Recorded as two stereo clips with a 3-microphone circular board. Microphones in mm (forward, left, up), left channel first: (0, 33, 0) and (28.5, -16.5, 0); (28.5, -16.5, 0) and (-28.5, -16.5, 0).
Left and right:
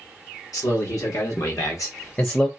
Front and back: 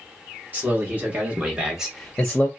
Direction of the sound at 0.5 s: 125° left.